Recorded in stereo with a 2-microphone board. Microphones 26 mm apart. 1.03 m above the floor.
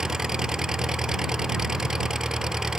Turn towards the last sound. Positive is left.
turn(degrees=-25)  # may be behind; listen again after turning